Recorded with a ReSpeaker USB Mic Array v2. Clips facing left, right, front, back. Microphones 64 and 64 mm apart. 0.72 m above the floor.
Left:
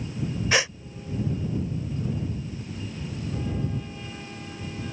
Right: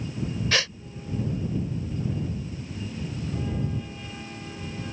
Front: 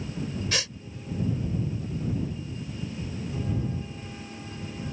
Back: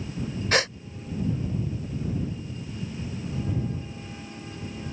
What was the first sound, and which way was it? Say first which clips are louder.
A gasp: left 3 dB, back 12 dB; 155° left.